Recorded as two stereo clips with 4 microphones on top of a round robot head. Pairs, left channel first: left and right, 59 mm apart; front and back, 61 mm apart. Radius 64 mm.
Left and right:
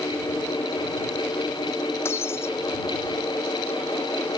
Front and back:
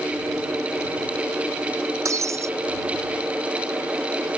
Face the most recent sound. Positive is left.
turn(degrees=145)